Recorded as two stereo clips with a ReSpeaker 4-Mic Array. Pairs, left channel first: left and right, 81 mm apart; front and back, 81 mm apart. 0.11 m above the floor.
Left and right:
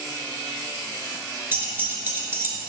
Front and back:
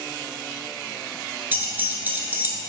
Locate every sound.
1.5 s keys jangling: 130° right, 1.2 m